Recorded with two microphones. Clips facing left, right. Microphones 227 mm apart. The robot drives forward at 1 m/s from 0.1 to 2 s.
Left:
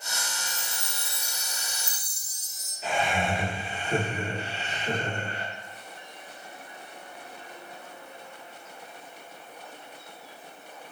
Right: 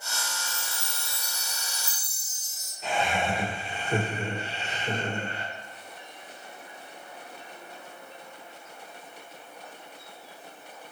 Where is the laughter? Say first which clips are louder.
Even; centre (ahead or behind), 1.7 m.